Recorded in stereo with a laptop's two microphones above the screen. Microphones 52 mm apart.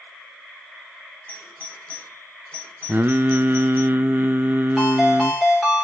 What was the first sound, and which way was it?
A doorbell, 30° left (ahead or behind).